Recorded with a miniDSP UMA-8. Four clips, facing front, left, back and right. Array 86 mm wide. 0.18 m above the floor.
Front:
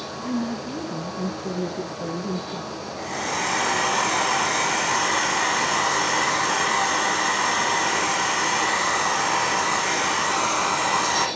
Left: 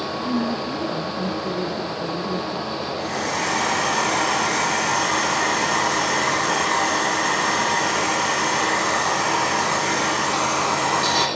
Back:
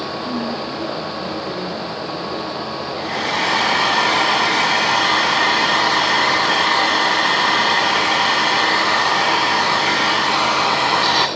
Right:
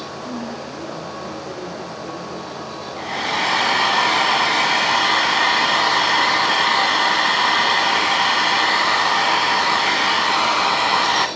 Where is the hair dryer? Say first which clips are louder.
Right 4 dB, back 5 dB; 135° right, 1.5 m.